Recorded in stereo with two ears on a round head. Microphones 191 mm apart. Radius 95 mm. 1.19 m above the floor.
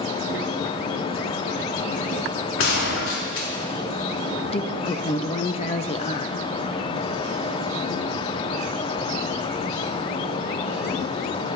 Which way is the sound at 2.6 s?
65° left (ahead or behind).